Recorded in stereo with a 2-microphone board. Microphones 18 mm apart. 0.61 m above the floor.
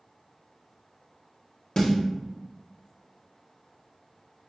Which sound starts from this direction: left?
A snare drum, at 1.8 s.